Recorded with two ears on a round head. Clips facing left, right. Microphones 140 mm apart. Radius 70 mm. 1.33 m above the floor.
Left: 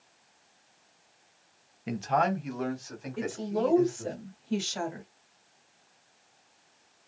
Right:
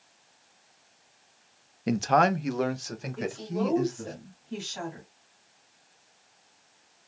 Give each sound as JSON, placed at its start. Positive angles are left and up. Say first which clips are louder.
{"t": 1.9, "sound": "a man speaking", "louder": "right 4 dB", "side_deg": -50, "distance_m": 0.6}
{"t": 3.2, "sound": "a woman speaking", "louder": "left 1 dB", "side_deg": 70, "distance_m": 2.0}